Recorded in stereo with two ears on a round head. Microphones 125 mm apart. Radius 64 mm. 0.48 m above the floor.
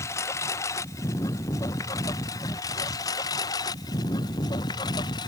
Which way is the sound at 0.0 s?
20° left (ahead or behind).